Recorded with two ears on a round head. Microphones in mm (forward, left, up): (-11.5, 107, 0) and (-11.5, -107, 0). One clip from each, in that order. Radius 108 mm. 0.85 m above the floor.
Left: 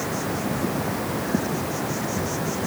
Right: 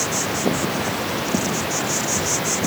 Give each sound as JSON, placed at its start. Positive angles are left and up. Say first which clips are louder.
{"t": 0.0, "sound": "an insect", "louder": "right 5 dB", "side_deg": -80}